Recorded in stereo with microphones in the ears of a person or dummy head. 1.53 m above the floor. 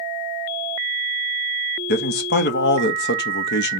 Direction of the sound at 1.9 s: 55° left (ahead or behind).